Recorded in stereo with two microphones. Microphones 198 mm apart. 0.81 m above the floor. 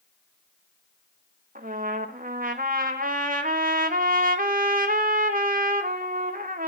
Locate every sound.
1.6 s a trumpet: 45° right (ahead or behind), 1.3 m